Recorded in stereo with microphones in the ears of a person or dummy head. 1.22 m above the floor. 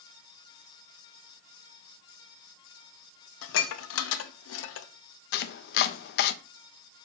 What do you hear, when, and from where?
3.4 s dishes clattering: 75° left (ahead or behind), 0.8 m
5.3 s chopping: 60° left (ahead or behind), 0.6 m